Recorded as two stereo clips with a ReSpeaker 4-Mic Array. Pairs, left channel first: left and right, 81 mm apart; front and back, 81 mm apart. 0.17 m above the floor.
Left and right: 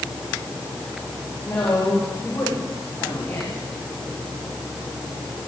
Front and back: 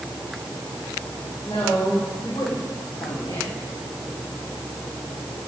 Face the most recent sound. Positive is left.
turn(degrees=40)